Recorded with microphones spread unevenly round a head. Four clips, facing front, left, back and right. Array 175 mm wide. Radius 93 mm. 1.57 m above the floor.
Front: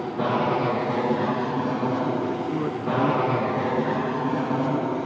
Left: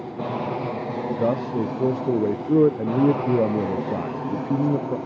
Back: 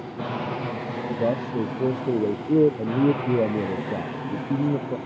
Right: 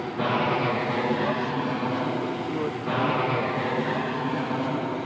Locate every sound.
0.0 s an aircraft: 10° right; by 5.1 s 5° left
1.2 s a man speaking: 120° left